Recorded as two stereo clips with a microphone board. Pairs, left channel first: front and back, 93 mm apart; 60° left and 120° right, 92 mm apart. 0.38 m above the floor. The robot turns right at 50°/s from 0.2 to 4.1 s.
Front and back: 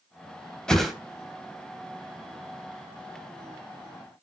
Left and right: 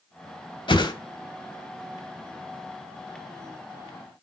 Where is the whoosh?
80° left, 1.0 m; by 0.9 s 95° left, 1.0 m.